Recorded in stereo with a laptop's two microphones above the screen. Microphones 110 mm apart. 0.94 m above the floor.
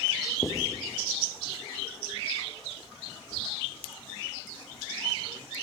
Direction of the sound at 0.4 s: 25° left (ahead or behind).